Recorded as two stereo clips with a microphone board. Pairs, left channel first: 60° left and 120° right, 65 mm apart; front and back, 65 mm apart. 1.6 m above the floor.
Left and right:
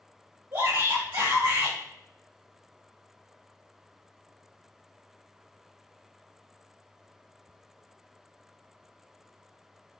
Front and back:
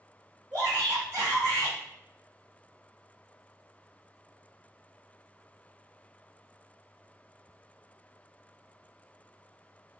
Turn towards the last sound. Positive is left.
turn(degrees=-130)